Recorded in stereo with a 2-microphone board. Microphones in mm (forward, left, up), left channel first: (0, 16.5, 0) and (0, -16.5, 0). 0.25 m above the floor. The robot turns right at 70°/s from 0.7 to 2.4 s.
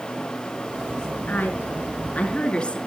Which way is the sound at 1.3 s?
65° left.